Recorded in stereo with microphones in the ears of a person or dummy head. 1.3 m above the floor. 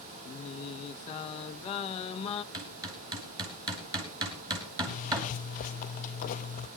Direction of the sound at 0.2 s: 35° left (ahead or behind).